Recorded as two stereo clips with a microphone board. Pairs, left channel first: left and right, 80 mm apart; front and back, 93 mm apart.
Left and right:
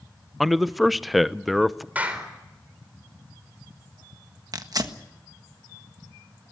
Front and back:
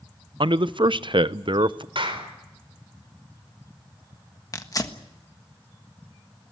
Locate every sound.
0.4 s a man speaking: straight behind, 0.6 m
1.9 s a clap: 160° right, 4 m
4.5 s tearing paper: 50° right, 1.4 m